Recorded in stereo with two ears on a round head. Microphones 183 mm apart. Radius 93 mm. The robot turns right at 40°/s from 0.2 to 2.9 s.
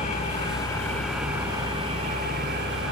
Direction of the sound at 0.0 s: 140° left.